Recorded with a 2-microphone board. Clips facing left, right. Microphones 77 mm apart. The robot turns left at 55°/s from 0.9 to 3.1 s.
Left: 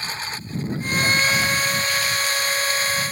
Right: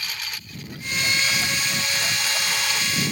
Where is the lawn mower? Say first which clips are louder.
Left 4 dB; 30° left; by 3.1 s 90° right.